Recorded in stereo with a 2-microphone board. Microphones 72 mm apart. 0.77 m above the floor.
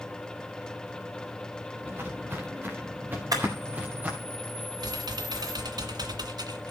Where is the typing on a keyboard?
65° right (ahead or behind), 2 m.